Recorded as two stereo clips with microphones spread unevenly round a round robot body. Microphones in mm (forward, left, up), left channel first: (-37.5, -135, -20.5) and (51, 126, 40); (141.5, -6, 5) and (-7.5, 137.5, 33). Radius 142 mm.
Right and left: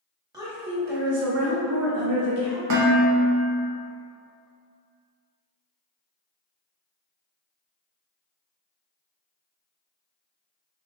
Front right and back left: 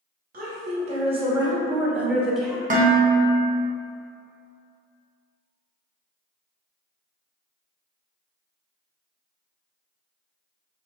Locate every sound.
0.3 s a woman speaking: 155° left, 0.9 m; by 2.6 s 40° left, 1.5 m
2.7 s dishes clattering: 90° left, 0.9 m